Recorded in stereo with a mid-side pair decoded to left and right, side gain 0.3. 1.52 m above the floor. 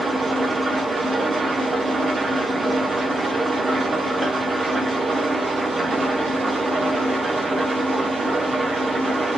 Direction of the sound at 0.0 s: 50° right.